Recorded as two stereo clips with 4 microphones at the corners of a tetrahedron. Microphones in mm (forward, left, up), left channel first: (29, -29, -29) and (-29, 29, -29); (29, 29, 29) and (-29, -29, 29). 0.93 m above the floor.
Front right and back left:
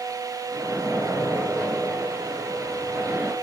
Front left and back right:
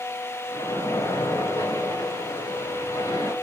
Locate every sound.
0.5 s a splash: 75° left, 1.4 m